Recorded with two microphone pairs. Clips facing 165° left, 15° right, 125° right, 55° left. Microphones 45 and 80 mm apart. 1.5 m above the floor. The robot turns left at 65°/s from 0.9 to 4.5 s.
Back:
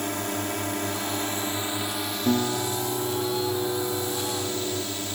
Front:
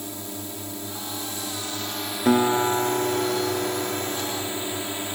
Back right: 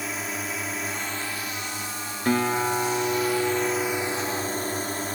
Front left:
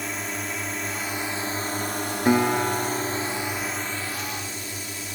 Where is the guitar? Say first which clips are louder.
Front 6 dB, front left 2 dB; 15° right; by 4.8 s 160° right.